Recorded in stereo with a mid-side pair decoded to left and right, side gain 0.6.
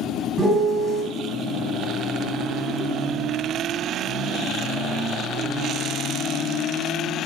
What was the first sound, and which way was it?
A piano, 30° right.